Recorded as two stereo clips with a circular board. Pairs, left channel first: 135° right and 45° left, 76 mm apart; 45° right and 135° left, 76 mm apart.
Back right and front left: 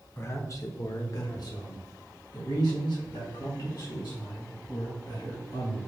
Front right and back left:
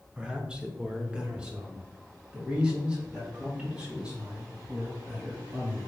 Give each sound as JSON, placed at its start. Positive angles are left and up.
{"t": 0.2, "sound": "a man speaking", "azimuth_deg": -155, "distance_m": 0.7}